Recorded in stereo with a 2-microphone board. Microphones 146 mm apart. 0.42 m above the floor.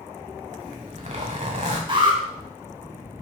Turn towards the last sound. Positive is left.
turn(degrees=-35)  # may be behind; listen again after turning